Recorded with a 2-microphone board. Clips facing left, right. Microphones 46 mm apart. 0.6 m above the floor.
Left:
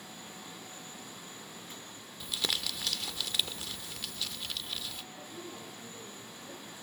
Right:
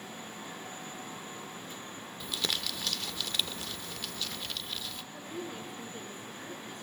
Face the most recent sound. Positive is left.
turn(degrees=-60)  # may be behind; listen again after turning